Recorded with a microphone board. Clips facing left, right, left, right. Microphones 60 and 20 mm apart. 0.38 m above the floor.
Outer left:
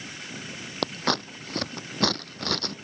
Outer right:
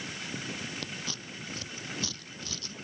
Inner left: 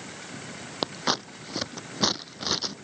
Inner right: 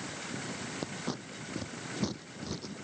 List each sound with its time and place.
0.8 s scissors: 65° left (ahead or behind)